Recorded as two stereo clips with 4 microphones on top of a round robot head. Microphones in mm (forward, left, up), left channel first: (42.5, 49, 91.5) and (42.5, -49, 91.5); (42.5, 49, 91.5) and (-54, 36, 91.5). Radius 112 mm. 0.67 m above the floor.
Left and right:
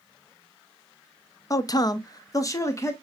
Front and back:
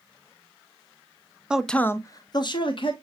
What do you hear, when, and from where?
1.5 s a man speaking: 110° left, 0.5 m; by 2.9 s 30° left, 1.1 m